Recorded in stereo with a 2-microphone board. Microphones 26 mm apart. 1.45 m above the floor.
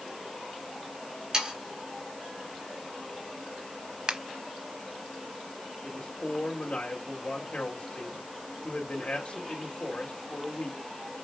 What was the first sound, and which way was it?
Sawing, 30° right (ahead or behind).